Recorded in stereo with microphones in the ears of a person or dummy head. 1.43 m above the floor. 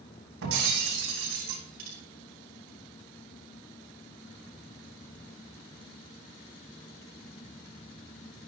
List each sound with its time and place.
0.4 s breaking glass: 65° right (ahead or behind), 3.5 m